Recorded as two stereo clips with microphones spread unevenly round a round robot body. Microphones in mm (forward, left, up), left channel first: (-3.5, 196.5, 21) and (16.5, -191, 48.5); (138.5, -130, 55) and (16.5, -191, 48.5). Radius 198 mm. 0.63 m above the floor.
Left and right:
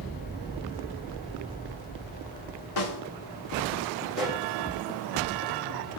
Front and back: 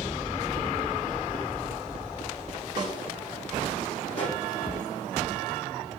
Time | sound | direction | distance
2.8 | a snare drum | 75° left | 4.5 m
4.1 | a pop | 5° left | 4.5 m